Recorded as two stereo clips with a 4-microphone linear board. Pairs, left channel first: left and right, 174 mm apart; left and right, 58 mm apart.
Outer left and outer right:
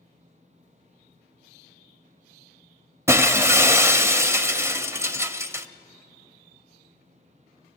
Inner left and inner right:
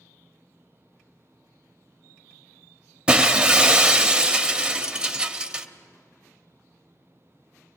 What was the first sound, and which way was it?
Breaking glass, 15° right (ahead or behind).